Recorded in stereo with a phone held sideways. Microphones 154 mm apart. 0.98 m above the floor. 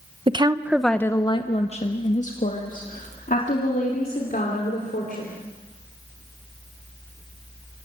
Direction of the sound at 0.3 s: 35° right (ahead or behind).